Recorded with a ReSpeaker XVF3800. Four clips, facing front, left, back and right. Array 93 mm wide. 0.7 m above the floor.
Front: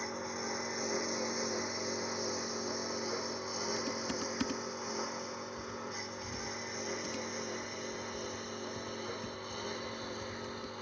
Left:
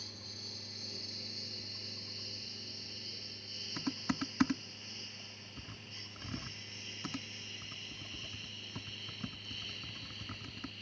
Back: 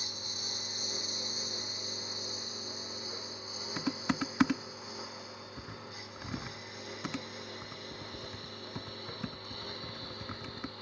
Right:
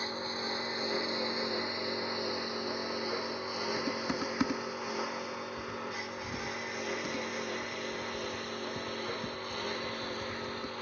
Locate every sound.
0.0 s a lawn mower: 60° right; by 10.8 s 75° right
3.8 s typing on a keyboard: 175° left